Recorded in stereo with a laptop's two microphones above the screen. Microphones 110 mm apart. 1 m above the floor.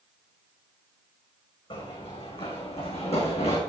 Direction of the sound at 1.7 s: 55° left (ahead or behind).